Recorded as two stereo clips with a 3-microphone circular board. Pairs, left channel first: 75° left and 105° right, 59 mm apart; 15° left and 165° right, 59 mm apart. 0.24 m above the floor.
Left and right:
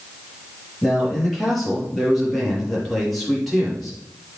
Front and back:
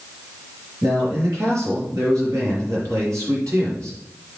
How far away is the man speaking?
About 5.5 m.